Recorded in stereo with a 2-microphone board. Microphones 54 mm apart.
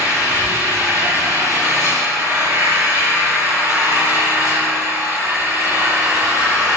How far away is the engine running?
About 7 m.